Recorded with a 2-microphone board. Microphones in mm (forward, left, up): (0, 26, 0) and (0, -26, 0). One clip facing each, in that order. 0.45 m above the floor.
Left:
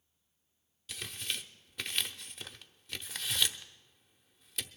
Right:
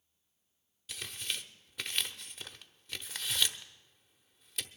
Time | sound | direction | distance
0.9 | tearing paper | centre (ahead or behind) | 0.8 m